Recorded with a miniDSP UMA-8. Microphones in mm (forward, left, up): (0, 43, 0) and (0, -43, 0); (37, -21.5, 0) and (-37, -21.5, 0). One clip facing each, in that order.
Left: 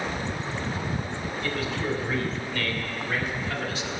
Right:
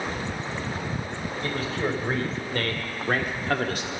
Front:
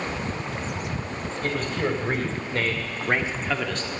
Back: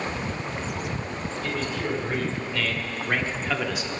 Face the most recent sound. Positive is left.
turn(degrees=-110)